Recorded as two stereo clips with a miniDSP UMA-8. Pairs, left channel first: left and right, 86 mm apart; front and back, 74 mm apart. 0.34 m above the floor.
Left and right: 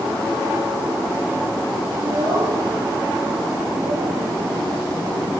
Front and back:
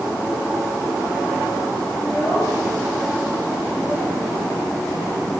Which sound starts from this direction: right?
A child speaking, at 2.0 s.